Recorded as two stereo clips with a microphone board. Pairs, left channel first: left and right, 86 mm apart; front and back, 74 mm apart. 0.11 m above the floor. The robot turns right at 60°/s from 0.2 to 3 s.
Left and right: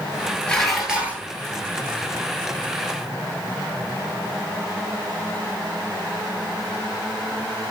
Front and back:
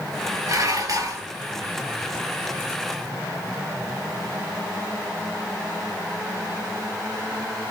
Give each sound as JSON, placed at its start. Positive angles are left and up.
{"t": 0.5, "sound": "dishes clattering", "azimuth_deg": 165, "distance_m": 1.2}